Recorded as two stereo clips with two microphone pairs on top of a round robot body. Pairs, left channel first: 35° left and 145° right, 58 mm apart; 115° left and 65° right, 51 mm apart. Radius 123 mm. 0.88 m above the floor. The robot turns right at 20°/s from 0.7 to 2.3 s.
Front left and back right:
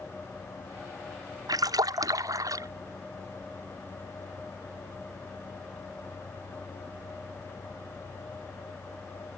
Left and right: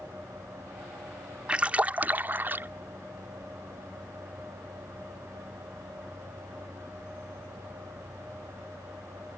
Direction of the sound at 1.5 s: 135° right.